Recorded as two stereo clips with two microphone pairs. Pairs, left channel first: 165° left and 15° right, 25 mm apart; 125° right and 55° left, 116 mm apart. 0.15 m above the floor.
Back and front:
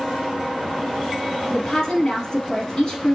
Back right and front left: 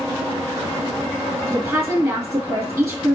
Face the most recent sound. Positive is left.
turn(degrees=120)